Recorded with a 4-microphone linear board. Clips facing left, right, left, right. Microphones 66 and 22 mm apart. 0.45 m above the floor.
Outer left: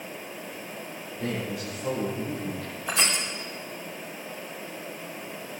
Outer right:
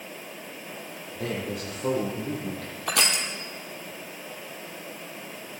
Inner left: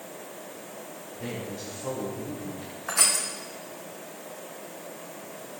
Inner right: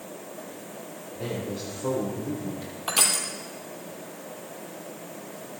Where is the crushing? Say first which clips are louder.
Outer right 1 dB, inner right 1 dB; 75° right (ahead or behind), 2.5 m.